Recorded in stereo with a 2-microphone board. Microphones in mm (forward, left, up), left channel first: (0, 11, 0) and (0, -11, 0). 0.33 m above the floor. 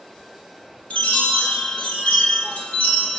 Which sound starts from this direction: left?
A chime, at 0.9 s.